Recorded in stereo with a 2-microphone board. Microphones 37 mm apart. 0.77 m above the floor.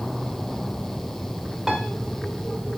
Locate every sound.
1.7 s a piano: 10° right (ahead or behind), 2 m